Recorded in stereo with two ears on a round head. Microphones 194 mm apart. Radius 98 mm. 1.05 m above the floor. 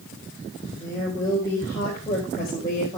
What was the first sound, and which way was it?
A woman speaking, 15° left (ahead or behind).